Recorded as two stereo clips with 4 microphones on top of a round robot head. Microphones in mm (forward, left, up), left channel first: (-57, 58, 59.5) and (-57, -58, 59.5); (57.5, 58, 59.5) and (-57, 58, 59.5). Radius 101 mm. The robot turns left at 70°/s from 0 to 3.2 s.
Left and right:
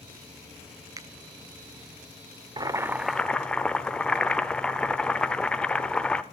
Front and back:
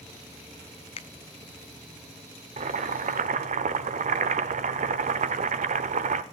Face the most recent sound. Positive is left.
turn(degrees=175)